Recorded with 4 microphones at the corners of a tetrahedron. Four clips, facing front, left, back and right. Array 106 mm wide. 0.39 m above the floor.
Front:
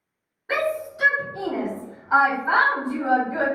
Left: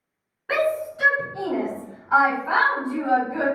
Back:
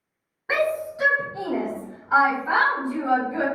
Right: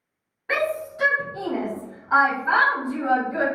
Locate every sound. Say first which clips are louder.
0.5 s a shout: left 2 dB, back 1 dB; 170° left, 1.5 m; by 3.5 s 30° right, 1.8 m